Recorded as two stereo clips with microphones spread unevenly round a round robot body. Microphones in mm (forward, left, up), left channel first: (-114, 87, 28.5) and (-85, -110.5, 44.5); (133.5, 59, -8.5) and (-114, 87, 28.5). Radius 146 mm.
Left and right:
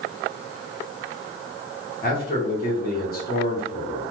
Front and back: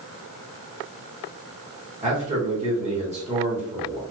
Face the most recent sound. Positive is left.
turn(degrees=110)